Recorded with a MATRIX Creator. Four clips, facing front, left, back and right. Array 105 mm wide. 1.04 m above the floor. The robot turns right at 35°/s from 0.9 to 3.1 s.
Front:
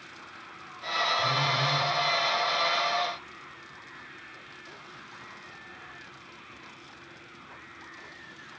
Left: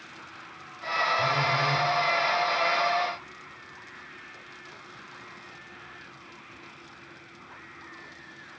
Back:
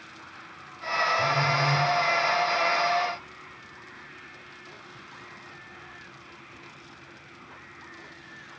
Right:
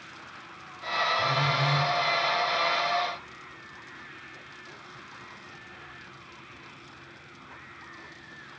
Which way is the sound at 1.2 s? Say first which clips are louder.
Left 1 dB, back 3 dB; 130° left.